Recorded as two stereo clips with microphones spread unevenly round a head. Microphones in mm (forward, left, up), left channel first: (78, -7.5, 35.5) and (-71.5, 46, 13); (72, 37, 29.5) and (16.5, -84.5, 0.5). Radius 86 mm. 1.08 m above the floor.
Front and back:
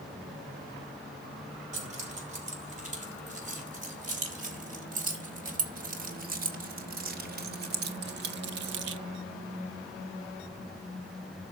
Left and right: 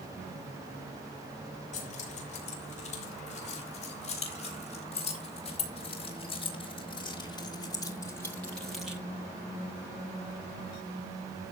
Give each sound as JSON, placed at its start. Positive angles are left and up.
{"t": 1.7, "sound": "keys jangling", "azimuth_deg": 115, "distance_m": 5.0}